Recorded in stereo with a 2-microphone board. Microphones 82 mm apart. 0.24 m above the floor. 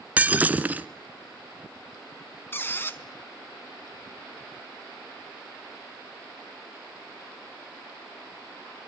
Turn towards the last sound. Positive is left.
turn(degrees=25)  # may be behind; listen again after turning